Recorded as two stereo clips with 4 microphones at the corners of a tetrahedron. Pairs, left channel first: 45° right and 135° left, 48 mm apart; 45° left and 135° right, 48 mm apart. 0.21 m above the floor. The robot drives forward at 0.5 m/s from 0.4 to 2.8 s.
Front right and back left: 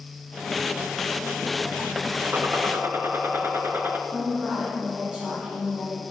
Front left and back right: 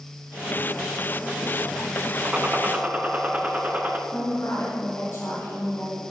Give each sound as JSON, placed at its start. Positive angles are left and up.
{"t": 2.2, "sound": "a gunshot", "azimuth_deg": 160, "distance_m": 0.8}
{"t": 4.1, "sound": "a woman speaking", "azimuth_deg": 70, "distance_m": 3.0}